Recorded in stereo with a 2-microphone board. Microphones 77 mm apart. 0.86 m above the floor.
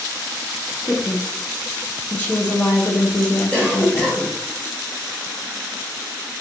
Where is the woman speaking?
20° left (ahead or behind), 0.5 m.